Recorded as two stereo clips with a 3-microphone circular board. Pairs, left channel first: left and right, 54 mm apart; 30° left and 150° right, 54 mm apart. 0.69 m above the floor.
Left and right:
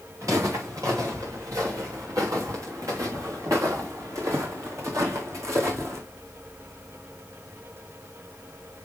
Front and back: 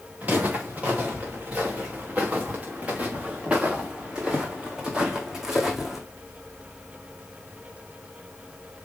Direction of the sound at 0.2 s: 90° right.